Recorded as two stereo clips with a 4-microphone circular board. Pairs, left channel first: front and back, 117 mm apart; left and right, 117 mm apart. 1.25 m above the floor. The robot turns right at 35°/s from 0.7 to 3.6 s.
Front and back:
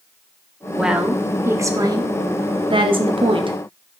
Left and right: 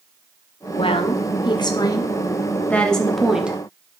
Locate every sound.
0.8 s a woman speaking: 95° left, 0.6 m; by 3.6 s 165° right, 0.6 m